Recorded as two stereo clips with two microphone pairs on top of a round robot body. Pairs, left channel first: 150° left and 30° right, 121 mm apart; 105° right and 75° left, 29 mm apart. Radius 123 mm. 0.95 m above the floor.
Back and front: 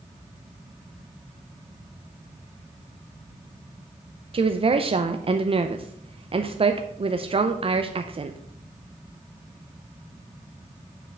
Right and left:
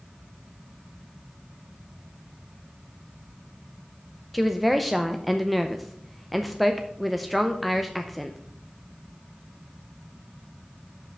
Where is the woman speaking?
10° right, 0.7 m.